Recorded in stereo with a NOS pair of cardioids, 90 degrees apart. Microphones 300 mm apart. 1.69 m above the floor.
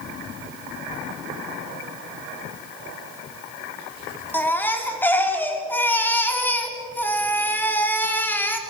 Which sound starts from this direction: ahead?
A baby crying, at 4.3 s.